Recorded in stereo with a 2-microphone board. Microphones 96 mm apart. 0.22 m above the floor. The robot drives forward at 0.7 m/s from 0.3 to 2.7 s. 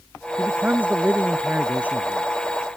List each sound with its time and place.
0.4 s a man speaking: 20° right (ahead or behind); by 2.3 s 15° right (ahead or behind)